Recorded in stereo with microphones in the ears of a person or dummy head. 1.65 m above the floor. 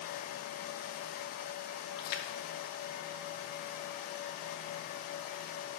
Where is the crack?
No crack in this recording.